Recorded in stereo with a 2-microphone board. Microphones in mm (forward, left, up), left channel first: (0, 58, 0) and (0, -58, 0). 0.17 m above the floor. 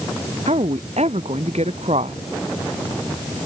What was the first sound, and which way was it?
A woman speaking, 70° right (ahead or behind).